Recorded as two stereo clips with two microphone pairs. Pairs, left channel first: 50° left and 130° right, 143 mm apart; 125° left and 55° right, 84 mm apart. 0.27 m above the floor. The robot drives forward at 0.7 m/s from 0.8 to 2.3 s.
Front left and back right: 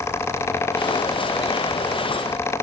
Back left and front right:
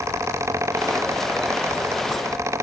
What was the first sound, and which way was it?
Only background noise.